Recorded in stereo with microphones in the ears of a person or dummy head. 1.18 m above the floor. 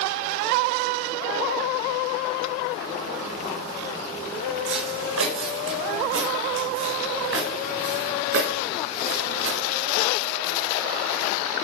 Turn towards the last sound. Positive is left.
turn(degrees=-80)